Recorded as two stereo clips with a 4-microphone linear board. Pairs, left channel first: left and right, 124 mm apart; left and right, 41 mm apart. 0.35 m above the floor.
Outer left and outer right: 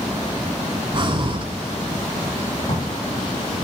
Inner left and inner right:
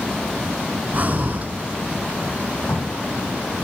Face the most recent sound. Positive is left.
turn(degrees=60)  # may be behind; listen again after turning